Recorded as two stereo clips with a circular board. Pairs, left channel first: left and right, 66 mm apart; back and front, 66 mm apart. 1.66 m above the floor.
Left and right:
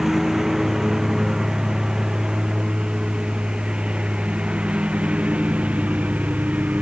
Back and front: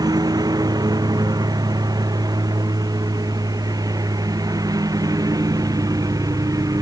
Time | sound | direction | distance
0.0 | a lawn mower | 5° right | ?